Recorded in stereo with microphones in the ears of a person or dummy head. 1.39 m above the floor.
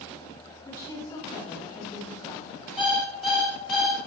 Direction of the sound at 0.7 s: 20° left (ahead or behind).